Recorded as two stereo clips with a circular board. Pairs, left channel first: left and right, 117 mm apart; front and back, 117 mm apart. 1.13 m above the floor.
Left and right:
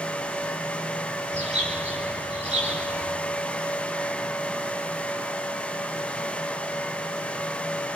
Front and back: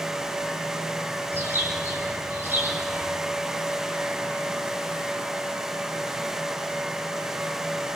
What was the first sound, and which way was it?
A bird, 110° right.